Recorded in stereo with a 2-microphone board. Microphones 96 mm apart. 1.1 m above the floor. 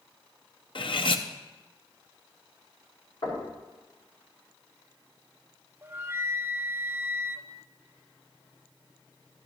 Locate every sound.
0.8 s cutlery clinking: 60° left (ahead or behind), 0.7 m
3.2 s knocking: 60° left (ahead or behind), 5.5 m
5.8 s a flute: 25° right (ahead or behind), 0.5 m